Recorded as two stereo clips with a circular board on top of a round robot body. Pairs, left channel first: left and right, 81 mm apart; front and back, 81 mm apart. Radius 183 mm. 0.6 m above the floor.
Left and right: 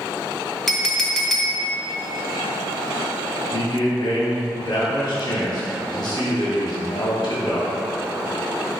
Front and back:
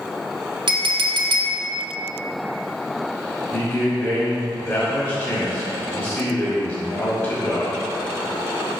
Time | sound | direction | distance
0.7 | a clink | 175° left | 0.9 m
3.5 | a man speaking | 50° left | 2 m